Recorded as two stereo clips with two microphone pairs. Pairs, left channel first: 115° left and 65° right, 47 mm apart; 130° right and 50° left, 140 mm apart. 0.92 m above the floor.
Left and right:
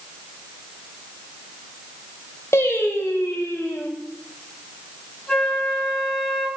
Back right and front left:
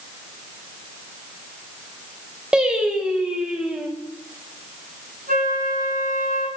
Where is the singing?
135° left, 2.5 m.